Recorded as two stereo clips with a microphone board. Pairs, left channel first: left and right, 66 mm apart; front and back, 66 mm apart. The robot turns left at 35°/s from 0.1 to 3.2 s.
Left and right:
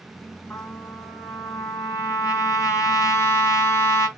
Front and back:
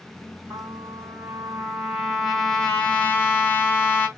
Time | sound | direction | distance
0.5 | a trumpet | 150° left | 2.5 m